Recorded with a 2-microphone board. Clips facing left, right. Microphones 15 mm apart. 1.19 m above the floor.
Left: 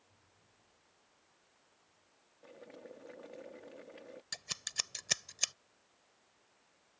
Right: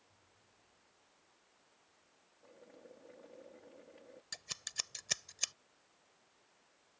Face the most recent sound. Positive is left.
turn(degrees=15)  # may be behind; listen again after turning